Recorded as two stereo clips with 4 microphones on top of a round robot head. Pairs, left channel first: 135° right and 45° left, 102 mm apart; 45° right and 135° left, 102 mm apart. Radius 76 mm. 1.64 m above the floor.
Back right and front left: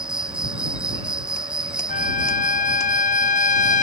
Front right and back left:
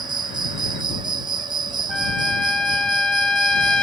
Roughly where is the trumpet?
Behind right.